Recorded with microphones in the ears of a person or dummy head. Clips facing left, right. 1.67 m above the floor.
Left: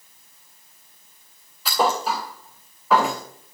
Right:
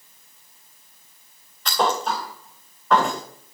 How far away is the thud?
About 2.5 m.